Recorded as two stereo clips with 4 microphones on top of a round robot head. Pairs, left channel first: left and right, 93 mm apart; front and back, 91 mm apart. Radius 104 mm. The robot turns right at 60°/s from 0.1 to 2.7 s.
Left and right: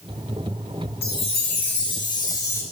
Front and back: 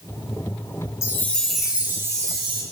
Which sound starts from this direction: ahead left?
A chime, at 1.0 s.